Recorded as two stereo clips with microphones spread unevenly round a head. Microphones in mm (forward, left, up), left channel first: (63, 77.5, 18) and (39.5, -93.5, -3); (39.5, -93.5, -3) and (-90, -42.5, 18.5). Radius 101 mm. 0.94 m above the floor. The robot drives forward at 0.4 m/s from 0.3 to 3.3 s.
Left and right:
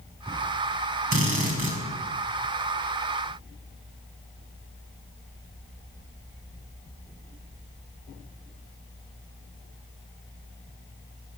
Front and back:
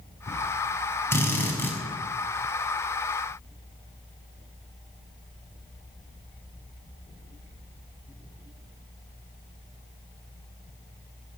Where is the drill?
95° right, 7.5 m.